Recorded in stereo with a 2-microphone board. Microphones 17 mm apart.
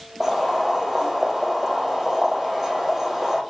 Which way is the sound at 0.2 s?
15° right (ahead or behind).